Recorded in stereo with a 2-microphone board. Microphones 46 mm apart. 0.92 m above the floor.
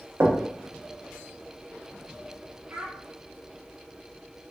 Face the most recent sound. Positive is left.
turn(degrees=-55)  # may be behind; listen again after turning